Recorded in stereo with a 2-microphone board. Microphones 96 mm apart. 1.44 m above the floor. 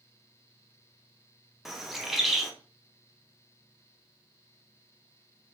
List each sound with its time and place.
1.6 s a bird: centre (ahead or behind), 0.5 m